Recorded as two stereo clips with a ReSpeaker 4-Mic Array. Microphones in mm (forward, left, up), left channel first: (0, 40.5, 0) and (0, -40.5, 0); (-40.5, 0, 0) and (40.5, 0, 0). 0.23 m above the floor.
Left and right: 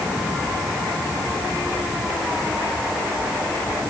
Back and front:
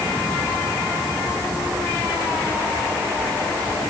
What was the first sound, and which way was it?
Only background noise.